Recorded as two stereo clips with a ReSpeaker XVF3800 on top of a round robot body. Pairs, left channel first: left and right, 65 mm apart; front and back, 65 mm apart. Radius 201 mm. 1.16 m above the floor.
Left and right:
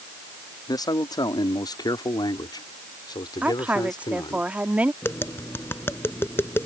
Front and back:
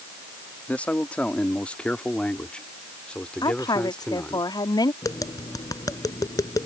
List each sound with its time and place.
0.7 s a man speaking: 70° left; by 4.4 s 80° left
3.4 s a woman speaking: 20° right
5.0 s tapping: 35° left